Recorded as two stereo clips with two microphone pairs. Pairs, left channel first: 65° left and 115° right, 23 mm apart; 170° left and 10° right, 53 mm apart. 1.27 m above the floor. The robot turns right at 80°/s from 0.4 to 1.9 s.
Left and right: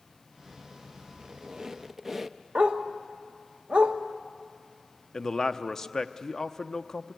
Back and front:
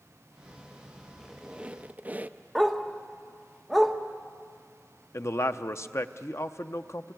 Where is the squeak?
100° right, 0.6 m; by 2.4 s 45° right, 0.6 m.